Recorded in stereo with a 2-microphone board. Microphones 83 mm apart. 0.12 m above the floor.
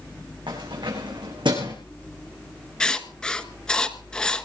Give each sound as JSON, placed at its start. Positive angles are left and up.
{"t": 0.5, "sound": "keys jangling", "side_deg": -75, "distance_m": 8.0}
{"t": 2.8, "sound": "writing", "side_deg": 10, "distance_m": 1.3}